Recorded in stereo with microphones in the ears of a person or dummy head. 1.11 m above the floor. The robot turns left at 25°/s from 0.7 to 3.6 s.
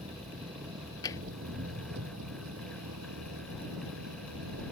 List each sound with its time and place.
0.0 s an engine running: 30° right; by 4.7 s 105° right
1.0 s tapping: 20° left (ahead or behind); by 1.2 s 15° left (ahead or behind)